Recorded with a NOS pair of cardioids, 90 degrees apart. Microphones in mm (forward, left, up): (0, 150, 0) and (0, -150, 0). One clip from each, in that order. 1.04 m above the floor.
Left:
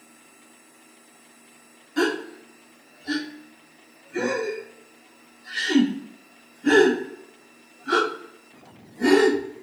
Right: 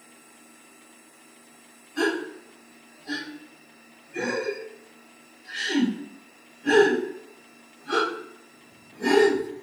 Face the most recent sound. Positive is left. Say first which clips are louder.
# left 2 dB
turn(degrees=35)